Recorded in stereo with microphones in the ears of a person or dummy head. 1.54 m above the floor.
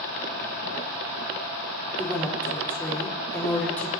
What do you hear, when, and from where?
2.0 s a woman speaking: 10° left (ahead or behind), 4.5 m